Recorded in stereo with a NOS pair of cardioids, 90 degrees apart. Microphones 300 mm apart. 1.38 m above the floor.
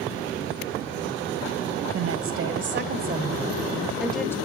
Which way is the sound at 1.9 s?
55° right.